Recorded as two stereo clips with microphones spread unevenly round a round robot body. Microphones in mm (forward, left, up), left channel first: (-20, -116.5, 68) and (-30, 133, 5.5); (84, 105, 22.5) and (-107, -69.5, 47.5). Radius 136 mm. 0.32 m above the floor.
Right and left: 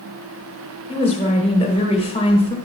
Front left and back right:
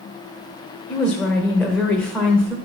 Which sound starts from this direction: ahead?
A woman speaking, at 0.9 s.